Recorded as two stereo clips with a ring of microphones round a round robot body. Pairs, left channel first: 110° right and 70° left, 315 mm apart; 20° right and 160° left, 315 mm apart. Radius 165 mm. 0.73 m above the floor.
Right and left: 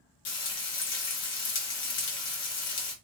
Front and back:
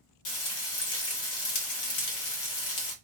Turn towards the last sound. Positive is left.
turn(degrees=-55)